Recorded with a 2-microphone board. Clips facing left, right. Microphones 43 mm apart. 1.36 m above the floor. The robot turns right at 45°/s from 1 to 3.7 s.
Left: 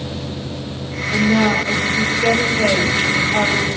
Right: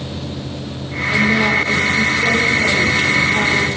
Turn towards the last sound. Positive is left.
turn(degrees=115)